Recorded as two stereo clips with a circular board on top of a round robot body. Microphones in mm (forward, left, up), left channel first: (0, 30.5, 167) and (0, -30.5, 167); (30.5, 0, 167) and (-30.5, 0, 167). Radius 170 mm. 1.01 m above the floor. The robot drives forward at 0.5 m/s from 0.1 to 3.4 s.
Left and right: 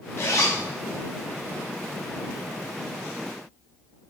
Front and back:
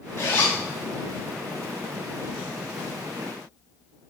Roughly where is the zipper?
Ahead left.